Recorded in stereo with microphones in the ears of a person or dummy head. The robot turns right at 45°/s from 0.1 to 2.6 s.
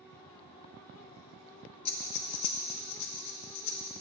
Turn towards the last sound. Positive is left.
turn(degrees=80)